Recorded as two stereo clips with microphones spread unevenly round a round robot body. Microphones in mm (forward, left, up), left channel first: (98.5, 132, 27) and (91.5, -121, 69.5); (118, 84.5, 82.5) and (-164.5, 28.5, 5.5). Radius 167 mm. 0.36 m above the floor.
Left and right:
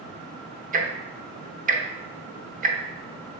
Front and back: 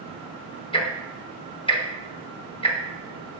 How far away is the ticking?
About 0.9 m.